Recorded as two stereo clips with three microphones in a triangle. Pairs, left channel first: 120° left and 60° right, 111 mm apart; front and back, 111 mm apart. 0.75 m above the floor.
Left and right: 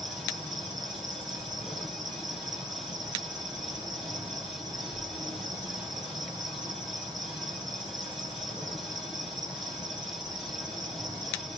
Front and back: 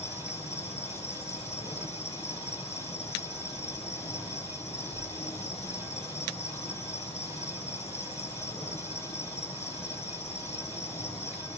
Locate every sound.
0.0 s an insect: 5° right, 9.5 m